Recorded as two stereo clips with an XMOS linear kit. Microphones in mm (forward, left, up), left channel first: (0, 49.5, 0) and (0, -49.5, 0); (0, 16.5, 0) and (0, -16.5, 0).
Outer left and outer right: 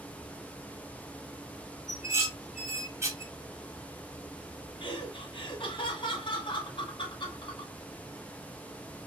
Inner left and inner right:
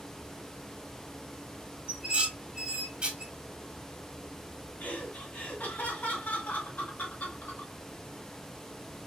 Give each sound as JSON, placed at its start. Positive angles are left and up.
{"t": 1.9, "sound": "dishes clattering", "side_deg": -30, "distance_m": 1.1}
{"t": 4.8, "sound": "laughter", "side_deg": 60, "distance_m": 1.8}